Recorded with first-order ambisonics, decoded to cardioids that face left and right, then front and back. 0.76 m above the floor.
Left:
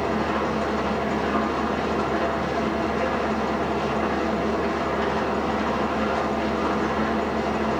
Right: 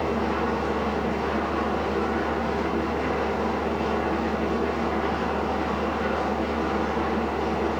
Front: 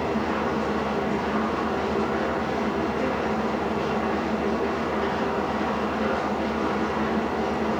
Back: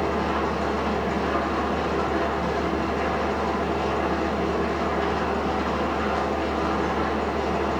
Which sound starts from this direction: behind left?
An engine running, at 0.0 s.